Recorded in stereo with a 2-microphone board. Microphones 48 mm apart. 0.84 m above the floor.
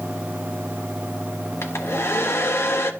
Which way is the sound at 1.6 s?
60° left (ahead or behind).